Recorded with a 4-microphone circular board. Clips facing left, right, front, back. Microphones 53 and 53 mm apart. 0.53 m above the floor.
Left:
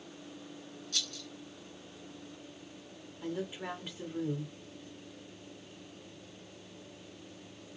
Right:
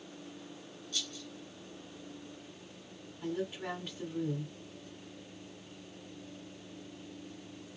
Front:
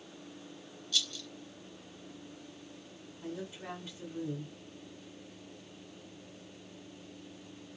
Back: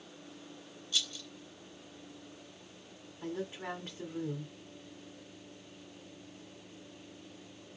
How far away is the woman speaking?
About 1.7 m.